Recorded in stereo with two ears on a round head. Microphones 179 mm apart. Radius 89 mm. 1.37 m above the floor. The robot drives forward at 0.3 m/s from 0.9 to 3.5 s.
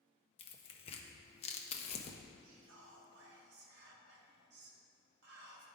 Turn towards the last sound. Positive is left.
turn(degrees=-55)  # may be behind; listen again after turning